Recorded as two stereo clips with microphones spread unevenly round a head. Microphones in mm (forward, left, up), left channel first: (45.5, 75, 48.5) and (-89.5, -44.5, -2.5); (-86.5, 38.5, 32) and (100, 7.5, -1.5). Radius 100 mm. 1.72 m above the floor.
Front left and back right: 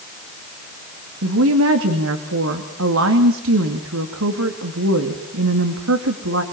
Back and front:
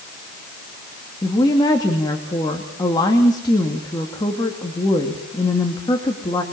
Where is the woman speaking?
120° right, 2.5 m.